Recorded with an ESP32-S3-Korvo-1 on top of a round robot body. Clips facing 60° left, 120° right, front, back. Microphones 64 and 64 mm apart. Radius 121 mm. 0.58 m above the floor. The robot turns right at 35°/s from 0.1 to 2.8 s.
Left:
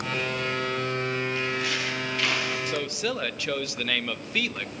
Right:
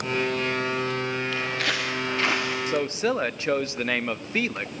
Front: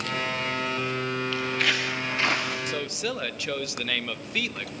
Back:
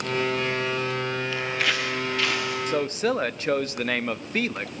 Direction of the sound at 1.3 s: 110° right.